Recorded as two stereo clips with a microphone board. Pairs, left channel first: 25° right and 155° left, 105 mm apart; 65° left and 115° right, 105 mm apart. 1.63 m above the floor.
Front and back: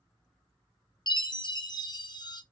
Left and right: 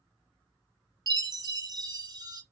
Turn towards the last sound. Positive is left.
turn(degrees=-65)